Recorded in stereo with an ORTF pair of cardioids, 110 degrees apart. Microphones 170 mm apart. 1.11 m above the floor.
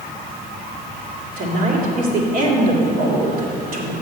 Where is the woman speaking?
55° right, 2.5 m.